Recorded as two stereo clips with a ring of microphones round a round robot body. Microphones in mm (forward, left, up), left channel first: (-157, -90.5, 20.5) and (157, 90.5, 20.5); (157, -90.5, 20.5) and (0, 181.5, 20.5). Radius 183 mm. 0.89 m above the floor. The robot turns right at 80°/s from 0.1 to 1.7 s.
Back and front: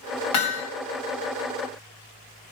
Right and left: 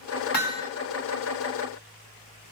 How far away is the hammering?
About 4 m.